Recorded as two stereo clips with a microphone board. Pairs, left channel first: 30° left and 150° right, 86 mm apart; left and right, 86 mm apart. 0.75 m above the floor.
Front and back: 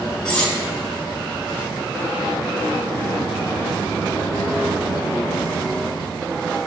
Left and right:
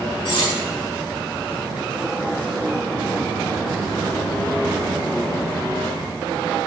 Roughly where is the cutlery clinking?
Left.